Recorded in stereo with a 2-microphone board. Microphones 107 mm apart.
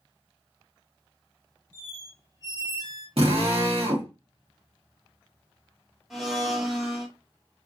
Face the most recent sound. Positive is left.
turn(degrees=-5)  # may be behind; listen again after turning